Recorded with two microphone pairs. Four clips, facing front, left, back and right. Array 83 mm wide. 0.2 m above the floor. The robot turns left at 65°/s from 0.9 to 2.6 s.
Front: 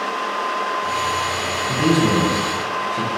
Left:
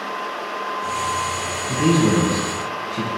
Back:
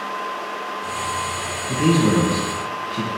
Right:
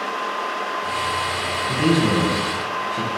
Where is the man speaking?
80° right, 1.3 m; by 3.1 s 140° right, 1.3 m.